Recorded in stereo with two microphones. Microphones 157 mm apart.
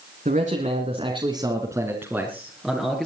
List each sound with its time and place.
0.2 s a man speaking: 50° right (ahead or behind), 2.5 m; by 3.1 s 5° left (ahead or behind), 3.5 m